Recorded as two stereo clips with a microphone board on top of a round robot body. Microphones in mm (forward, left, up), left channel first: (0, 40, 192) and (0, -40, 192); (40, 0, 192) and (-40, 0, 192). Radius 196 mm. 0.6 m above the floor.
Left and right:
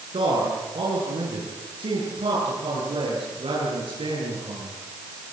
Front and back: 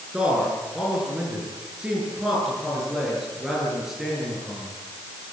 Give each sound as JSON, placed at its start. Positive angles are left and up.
{"t": 0.1, "sound": "a man speaking", "azimuth_deg": -100, "distance_m": 9.0}